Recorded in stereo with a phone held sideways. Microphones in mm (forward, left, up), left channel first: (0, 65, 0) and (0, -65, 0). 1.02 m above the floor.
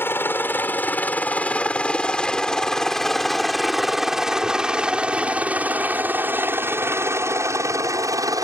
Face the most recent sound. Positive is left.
turn(degrees=-25)  # may be behind; listen again after turning